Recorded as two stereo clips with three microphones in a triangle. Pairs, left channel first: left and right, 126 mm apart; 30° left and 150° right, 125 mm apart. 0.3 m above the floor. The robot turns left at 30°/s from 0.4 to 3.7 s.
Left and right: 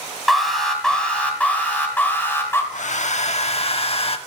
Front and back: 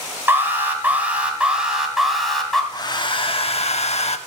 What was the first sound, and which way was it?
An alarm, 175° left.